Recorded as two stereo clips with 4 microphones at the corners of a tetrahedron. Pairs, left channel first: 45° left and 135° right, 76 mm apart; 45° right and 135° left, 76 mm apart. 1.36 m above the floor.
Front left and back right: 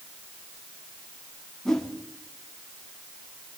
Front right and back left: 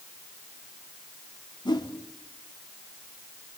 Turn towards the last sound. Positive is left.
turn(degrees=-40)